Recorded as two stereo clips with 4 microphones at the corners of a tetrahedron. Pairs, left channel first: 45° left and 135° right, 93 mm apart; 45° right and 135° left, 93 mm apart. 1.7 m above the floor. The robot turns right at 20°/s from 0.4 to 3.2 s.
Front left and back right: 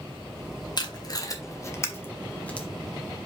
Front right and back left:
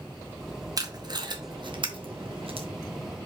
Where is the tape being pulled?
85° left, 1.4 m; by 2.7 s 125° left, 1.4 m.